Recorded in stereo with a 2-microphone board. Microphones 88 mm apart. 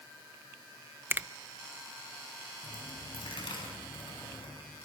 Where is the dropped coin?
70° left (ahead or behind), 6.5 m.